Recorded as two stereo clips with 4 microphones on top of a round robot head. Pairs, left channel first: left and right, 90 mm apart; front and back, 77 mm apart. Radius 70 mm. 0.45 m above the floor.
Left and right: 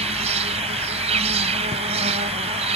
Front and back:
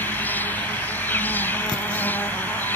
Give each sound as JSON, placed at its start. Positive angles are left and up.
{"t": 0.0, "sound": "an insect", "azimuth_deg": -75}